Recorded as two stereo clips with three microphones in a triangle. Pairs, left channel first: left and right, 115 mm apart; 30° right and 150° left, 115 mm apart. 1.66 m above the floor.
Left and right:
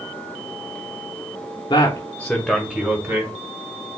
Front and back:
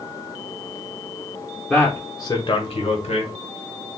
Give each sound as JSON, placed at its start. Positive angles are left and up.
{"t": 1.7, "sound": "a man speaking", "azimuth_deg": 55, "distance_m": 0.9}